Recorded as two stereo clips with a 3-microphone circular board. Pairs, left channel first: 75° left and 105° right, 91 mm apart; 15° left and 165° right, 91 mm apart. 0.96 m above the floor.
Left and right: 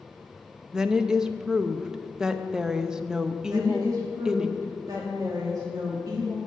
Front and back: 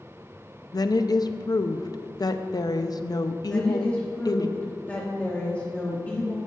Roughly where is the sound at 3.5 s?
Ahead right.